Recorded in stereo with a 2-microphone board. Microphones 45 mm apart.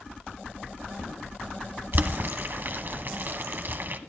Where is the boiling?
50° right (ahead or behind), 1.1 m.